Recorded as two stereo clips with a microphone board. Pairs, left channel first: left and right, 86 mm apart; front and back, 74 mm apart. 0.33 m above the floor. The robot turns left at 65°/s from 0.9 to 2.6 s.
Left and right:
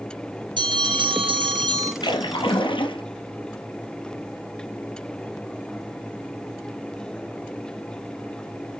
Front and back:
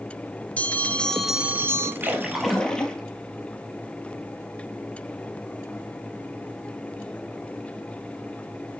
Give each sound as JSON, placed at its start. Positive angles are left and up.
{"t": 0.6, "sound": "a bell", "azimuth_deg": -70, "distance_m": 1.5}
{"t": 2.0, "sound": "a splash", "azimuth_deg": 115, "distance_m": 1.2}